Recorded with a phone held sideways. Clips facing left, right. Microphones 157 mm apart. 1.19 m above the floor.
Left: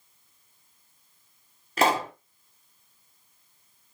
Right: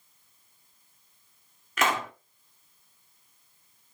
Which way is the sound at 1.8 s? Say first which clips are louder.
Left 4 dB; 35° left (ahead or behind).